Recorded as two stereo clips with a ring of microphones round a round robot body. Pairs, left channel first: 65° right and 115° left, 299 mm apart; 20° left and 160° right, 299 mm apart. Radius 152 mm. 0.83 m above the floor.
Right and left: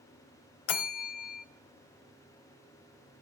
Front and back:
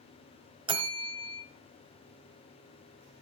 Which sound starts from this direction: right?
A bell, at 0.7 s.